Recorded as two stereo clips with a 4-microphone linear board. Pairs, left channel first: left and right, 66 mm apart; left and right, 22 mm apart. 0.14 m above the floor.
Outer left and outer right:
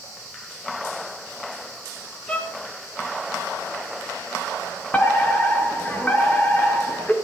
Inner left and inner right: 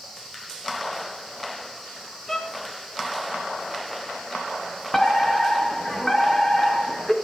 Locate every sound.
2.3 s a violin: 20° left (ahead or behind), 3 m
4.9 s a fire alarm: 25° left (ahead or behind), 3.5 m